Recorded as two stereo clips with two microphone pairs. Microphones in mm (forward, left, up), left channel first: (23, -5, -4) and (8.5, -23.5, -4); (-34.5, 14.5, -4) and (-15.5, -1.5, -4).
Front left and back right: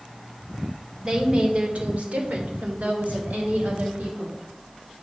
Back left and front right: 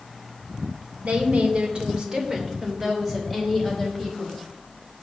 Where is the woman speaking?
65° right, 2 m; by 4.4 s 135° right, 4.5 m.